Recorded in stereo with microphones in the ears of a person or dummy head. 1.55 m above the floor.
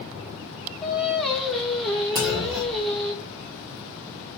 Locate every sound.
0.8 s singing: 5° left (ahead or behind), 1.3 m
2.1 s a clunk: 10° right (ahead or behind), 0.8 m